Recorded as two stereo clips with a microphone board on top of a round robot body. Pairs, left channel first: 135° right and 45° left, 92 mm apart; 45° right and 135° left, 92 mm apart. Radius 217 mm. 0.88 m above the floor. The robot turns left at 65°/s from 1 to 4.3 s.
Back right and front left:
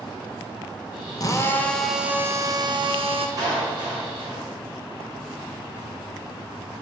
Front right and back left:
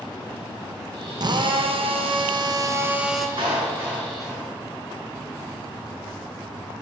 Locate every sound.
1.2 s a drill: straight behind, 1.8 m; by 3.3 s 45° left, 1.8 m
3.4 s a clap: 95° left, 8 m; by 4.5 s 35° left, 8 m